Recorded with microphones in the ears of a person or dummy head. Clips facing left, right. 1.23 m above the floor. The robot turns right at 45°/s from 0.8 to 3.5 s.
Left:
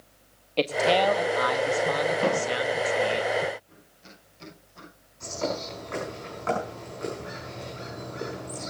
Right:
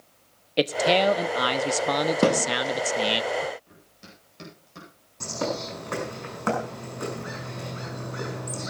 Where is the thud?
65° right (ahead or behind), 3 m; by 2.5 s 55° right (ahead or behind), 3 m.